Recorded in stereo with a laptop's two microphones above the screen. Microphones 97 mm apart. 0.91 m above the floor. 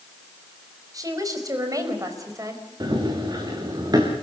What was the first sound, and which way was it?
A woman speaking, 40° right (ahead or behind).